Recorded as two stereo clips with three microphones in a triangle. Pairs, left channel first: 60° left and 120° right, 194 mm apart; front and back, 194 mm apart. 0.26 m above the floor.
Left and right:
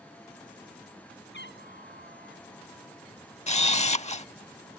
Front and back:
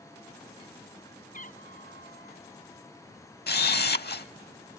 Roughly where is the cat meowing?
Ahead left.